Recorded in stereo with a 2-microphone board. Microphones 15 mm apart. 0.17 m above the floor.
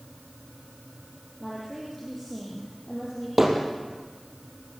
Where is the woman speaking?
15° left (ahead or behind), 6 m.